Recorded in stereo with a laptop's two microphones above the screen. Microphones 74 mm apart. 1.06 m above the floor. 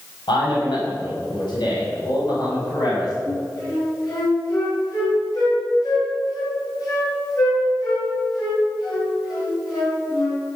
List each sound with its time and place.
0.3 s a man speaking: 85° left, 5.5 m; by 3.2 s 55° left (ahead or behind), 6 m
3.3 s a flute: 50° left (ahead or behind), 6 m